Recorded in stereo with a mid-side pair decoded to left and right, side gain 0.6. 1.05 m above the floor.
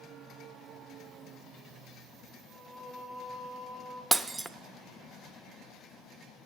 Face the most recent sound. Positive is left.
turn(degrees=-10)